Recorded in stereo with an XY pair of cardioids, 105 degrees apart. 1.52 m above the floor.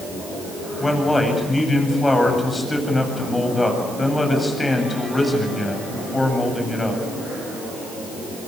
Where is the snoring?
I don't hear snoring.